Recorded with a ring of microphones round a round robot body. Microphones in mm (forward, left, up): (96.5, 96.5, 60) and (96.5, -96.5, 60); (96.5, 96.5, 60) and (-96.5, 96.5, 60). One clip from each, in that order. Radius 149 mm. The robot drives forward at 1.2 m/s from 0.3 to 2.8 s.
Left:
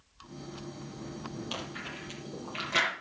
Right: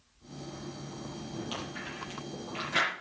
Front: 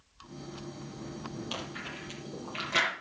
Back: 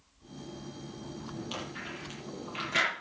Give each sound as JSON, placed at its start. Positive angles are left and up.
{"t": 1.5, "sound": "chewing", "azimuth_deg": 50, "distance_m": 8.5}